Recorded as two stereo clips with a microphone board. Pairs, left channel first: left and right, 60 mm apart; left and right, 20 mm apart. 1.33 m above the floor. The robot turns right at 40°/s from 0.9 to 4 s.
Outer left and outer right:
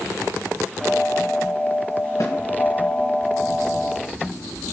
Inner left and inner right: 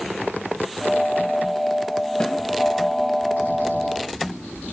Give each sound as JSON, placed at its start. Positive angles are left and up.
{"t": 2.2, "sound": "a snare drum", "side_deg": 55, "distance_m": 1.2}